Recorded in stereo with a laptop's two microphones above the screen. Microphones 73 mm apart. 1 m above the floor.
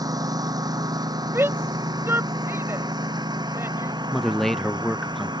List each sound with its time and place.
0.0 s a lawn mower: 55° right (ahead or behind); by 5.4 s 75° right (ahead or behind)
1.3 s a shout: 35° right (ahead or behind)
4.1 s a man speaking: 5° left (ahead or behind)